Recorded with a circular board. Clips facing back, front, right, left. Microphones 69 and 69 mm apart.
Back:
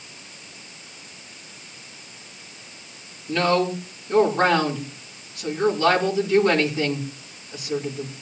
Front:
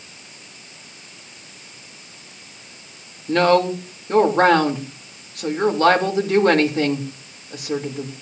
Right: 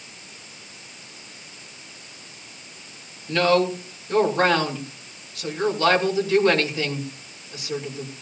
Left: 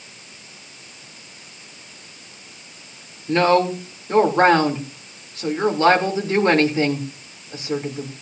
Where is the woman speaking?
30° left, 3 m.